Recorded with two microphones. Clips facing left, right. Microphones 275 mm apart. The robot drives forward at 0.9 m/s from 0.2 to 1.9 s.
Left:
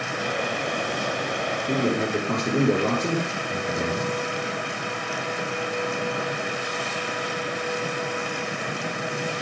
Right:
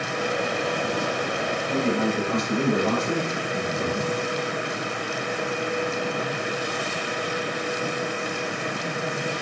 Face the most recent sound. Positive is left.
turn(degrees=70)  # may be behind; listen again after turning